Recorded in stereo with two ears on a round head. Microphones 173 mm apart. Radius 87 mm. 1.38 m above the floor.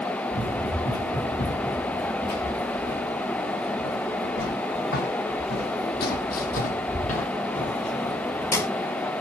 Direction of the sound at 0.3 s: 65° left (ahead or behind).